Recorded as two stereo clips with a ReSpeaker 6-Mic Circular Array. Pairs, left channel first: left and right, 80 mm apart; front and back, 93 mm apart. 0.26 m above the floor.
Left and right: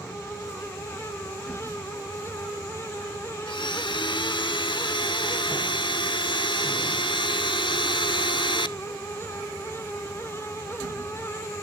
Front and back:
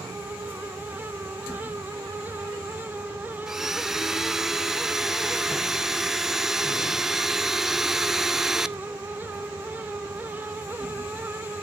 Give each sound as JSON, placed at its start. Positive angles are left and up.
{"t": 3.5, "sound": "a blender", "azimuth_deg": 95, "distance_m": 0.5}